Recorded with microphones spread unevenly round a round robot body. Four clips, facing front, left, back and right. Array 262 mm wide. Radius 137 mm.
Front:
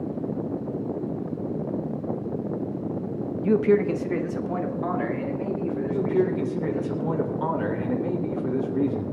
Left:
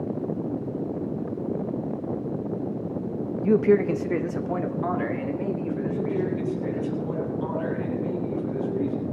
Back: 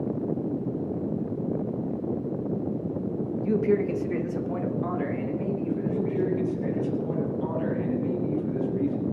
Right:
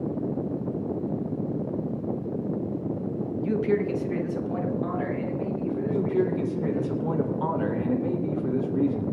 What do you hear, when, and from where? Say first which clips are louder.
3.4 s a man speaking: left 6 dB, front 4 dB; 50° left, 0.9 m; by 6.9 s 60° left, 5.5 m
5.9 s a man speaking: right 4 dB, front 5 dB; 25° right, 3 m